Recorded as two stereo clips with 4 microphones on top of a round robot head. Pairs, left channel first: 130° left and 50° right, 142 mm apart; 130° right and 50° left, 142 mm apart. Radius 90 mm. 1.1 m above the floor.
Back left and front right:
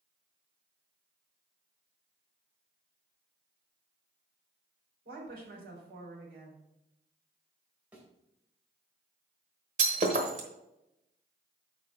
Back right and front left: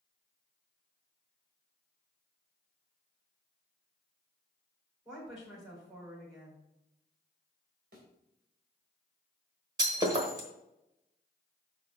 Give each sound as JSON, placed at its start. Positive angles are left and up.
{"t": 5.0, "sound": "a woman speaking", "azimuth_deg": -25, "distance_m": 3.5}
{"t": 7.9, "sound": "a thud", "azimuth_deg": 30, "distance_m": 2.5}
{"t": 9.8, "sound": "breaking glass", "azimuth_deg": -10, "distance_m": 1.2}